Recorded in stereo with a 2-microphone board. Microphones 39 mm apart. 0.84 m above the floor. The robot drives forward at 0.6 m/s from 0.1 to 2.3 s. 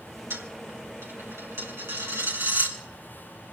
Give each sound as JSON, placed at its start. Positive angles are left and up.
{"t": 0.3, "sound": "a dropped coin", "side_deg": -80, "distance_m": 3.5}